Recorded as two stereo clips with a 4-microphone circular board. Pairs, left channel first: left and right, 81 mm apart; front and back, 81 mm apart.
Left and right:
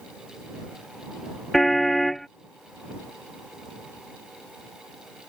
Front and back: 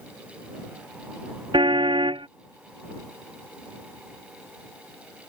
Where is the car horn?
175° left.